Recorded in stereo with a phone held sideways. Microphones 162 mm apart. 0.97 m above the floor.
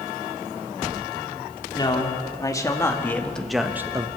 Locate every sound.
1.8 s a man speaking: 25° left (ahead or behind), 2.5 m; by 4.1 s 25° right (ahead or behind), 0.9 m